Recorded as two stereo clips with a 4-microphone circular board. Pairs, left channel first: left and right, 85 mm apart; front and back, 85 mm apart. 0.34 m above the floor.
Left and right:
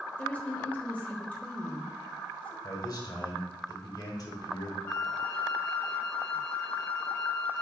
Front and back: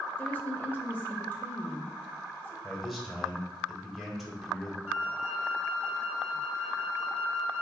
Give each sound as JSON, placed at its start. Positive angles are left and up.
{"t": 0.2, "sound": "a woman speaking", "azimuth_deg": 35, "distance_m": 0.9}
{"t": 2.6, "sound": "a man speaking", "azimuth_deg": 95, "distance_m": 1.3}
{"t": 4.9, "sound": "a flute", "azimuth_deg": 130, "distance_m": 0.7}